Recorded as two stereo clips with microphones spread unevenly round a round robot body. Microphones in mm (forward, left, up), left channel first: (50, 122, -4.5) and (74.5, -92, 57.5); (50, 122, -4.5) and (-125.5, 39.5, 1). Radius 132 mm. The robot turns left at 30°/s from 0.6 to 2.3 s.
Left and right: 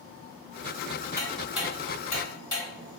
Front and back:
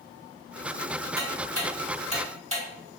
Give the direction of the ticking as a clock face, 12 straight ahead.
6 o'clock.